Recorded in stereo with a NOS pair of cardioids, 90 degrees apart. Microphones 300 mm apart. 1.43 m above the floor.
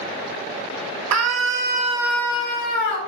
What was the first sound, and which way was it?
A scream, 65° right.